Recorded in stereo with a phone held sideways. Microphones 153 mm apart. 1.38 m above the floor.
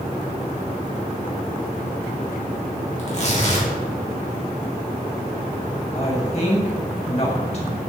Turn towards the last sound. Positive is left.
turn(degrees=45)  # may be behind; listen again after turning